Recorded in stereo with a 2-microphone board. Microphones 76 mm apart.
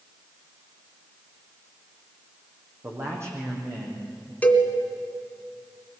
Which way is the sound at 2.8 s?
40° right (ahead or behind).